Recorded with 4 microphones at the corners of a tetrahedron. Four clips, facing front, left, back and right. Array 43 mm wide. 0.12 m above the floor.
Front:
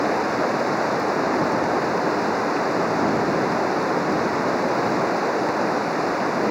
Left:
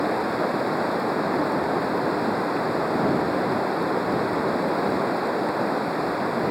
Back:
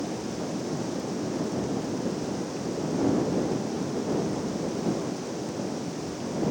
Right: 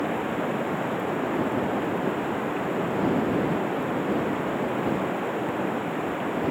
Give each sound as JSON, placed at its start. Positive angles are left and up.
{"t": 0.0, "sound": "running water", "azimuth_deg": 20}